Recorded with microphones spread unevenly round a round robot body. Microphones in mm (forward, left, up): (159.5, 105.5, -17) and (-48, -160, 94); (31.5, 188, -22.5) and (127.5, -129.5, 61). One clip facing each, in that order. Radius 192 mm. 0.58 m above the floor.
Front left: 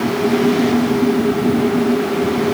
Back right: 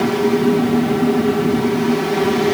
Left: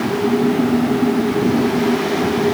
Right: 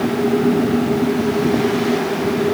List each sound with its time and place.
Only background noise.